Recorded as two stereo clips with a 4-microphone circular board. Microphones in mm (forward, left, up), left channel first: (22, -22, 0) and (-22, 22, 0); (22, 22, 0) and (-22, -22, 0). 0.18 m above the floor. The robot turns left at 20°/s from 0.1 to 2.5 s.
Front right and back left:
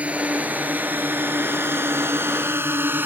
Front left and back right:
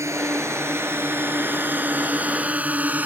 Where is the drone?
160° right; by 3.1 s 175° left.